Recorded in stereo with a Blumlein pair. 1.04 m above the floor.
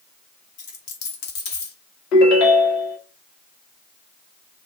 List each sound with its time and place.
0.6 s a dropped coin: 40° left, 1.4 m
2.1 s a ringtone: 40° left, 1.3 m